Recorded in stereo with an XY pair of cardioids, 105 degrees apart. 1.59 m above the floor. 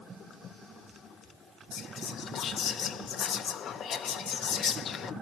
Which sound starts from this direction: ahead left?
Whispering, at 1.7 s.